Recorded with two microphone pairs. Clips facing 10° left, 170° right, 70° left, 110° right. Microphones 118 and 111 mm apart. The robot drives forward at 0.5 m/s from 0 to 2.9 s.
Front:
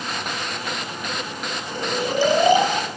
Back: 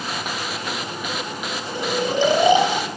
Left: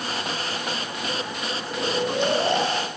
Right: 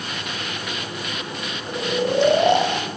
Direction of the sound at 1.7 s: 95° right.